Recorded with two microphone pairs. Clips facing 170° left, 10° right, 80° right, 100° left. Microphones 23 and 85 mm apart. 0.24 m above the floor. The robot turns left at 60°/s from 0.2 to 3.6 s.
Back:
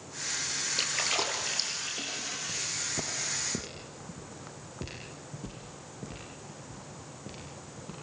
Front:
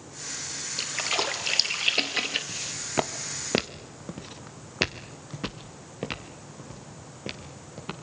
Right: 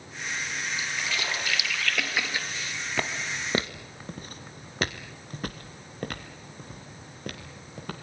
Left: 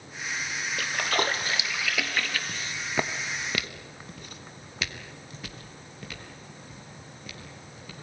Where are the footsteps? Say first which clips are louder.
Front 1 dB, even; 60° left, 1.5 m; by 7.9 s 55° right, 4 m.